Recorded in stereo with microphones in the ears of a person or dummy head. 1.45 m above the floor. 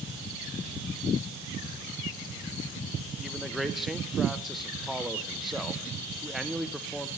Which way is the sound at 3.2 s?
5° right (ahead or behind).